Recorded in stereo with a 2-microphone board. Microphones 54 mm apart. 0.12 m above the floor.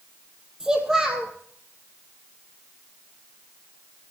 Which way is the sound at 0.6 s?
10° right (ahead or behind).